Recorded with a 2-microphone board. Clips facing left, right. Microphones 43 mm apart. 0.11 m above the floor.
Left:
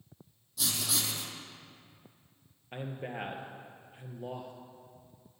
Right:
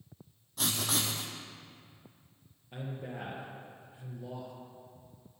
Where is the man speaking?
50° left (ahead or behind), 2.5 m.